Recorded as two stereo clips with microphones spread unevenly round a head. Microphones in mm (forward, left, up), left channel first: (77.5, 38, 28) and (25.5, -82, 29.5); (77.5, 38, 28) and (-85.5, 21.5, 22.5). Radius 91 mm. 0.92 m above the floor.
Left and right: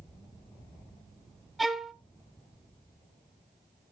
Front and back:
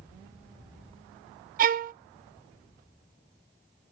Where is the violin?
155° left, 0.8 m.